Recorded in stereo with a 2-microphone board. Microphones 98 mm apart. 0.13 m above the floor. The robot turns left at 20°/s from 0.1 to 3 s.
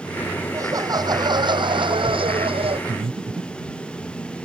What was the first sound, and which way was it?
Laughter, 35° right.